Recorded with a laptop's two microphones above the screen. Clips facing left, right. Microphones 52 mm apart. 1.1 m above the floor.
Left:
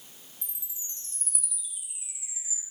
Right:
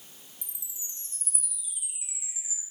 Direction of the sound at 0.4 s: 20° right (ahead or behind).